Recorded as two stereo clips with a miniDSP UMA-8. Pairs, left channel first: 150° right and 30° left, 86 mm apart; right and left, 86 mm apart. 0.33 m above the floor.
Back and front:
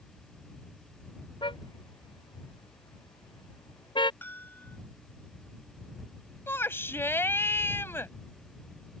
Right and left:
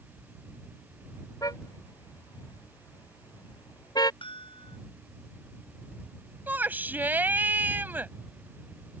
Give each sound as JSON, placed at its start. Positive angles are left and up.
{"t": 1.4, "sound": "a car horn", "azimuth_deg": -135}
{"t": 4.2, "sound": "a bell", "azimuth_deg": -85}
{"t": 6.5, "sound": "a shout", "azimuth_deg": 155}